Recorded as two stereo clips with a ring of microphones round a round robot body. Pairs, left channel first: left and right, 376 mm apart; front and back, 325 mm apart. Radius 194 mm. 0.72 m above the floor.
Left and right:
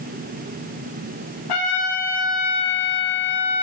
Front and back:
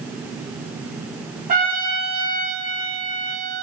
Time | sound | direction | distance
1.5 | a trumpet | 115° left | 3 m